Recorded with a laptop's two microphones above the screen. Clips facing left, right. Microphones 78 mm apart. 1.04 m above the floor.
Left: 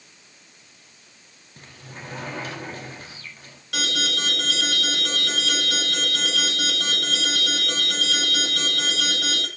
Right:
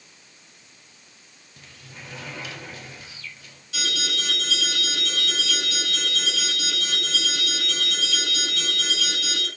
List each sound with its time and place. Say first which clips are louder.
1.6 s a sliding door: left 4 dB; 45° left (ahead or behind), 2 m
3.7 s an alarm: left 3 dB; 75° left (ahead or behind), 9 m